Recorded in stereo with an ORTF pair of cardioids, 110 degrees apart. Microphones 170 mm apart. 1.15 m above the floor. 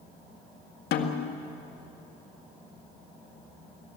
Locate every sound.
0.9 s a snare drum: 65° left, 2 m